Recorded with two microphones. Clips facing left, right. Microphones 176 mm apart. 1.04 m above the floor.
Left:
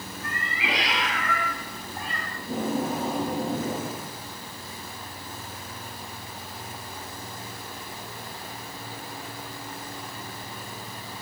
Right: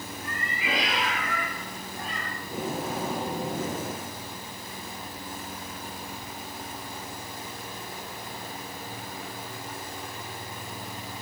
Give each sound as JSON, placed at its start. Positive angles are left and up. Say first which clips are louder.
{"t": 0.2, "sound": "a cat meowing", "louder": "left 2 dB", "side_deg": 80, "distance_m": 5.0}
{"t": 2.4, "sound": "tape being pulled", "louder": "left 6 dB", "side_deg": 65, "distance_m": 9.5}